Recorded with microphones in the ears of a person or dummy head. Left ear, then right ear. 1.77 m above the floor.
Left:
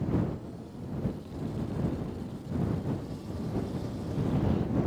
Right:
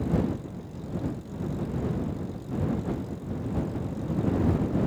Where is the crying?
No crying in this recording.